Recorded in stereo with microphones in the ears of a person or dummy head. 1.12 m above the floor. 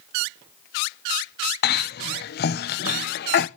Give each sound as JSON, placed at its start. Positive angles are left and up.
{"t": 1.6, "sound": "a cough", "side_deg": 50, "distance_m": 0.6}